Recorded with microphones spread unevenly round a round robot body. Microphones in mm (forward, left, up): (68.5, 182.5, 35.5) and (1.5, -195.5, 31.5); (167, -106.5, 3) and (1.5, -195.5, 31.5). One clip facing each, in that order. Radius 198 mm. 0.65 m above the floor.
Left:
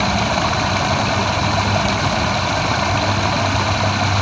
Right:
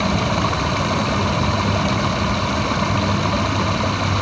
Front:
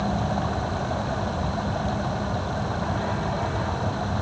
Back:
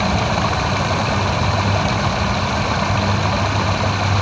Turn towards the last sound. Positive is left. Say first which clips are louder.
# even, back 6 dB
turn(degrees=160)